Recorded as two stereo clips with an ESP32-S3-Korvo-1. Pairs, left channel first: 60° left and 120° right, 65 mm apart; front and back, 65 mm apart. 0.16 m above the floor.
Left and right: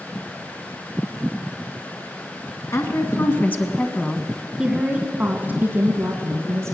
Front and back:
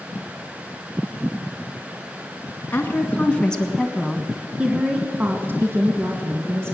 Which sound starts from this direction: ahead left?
A woman speaking, at 2.7 s.